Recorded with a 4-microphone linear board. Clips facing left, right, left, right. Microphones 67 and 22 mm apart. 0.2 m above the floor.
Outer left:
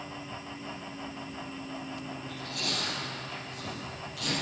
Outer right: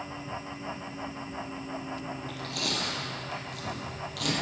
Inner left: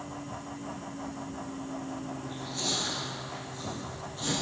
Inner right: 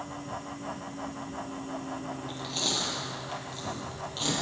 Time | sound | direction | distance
2.2 | chewing | 70° right (ahead or behind) | 5 m